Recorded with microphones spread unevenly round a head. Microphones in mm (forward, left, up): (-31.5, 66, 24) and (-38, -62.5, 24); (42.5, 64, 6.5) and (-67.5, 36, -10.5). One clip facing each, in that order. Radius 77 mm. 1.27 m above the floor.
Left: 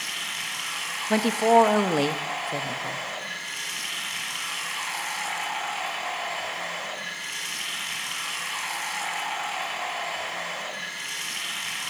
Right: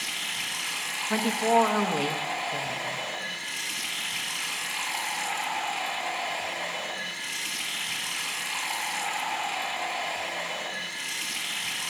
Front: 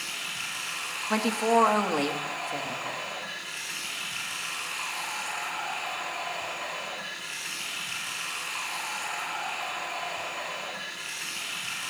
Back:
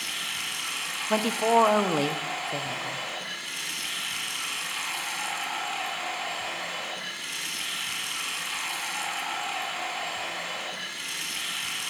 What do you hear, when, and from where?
0.0 s running water: 150° right, 3.5 m
1.1 s a woman speaking: 125° left, 0.9 m